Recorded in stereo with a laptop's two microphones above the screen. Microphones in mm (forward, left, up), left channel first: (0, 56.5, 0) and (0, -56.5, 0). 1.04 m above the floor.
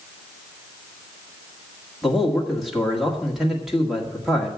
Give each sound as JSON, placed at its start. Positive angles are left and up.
{"t": 2.0, "sound": "a man speaking", "side_deg": 0, "distance_m": 1.9}